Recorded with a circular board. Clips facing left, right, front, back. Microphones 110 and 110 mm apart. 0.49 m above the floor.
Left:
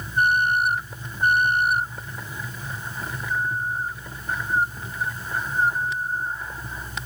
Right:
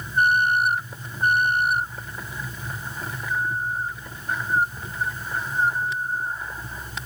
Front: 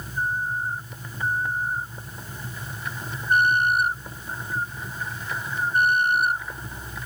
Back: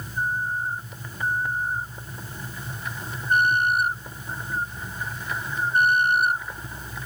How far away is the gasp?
No gasp in this recording.